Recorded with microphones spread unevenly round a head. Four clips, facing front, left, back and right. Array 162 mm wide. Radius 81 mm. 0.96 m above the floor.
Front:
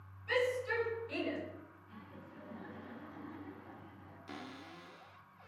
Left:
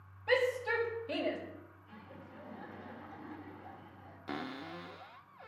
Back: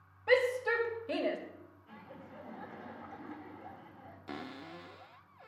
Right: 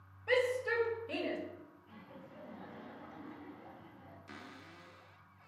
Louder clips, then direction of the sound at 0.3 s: Left 1 dB, back 5 dB; 175° left.